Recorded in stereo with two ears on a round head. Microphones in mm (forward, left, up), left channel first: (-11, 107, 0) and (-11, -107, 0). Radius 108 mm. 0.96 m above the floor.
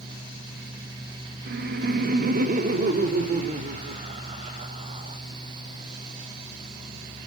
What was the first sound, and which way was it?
Laughter, 45° right (ahead or behind).